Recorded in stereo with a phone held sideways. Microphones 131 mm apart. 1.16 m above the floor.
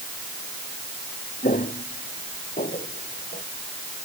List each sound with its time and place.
1.4 s footsteps: 85° left; by 3.4 s 80° left